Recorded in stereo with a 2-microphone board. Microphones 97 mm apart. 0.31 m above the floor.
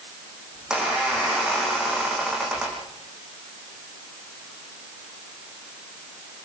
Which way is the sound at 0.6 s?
10° right (ahead or behind).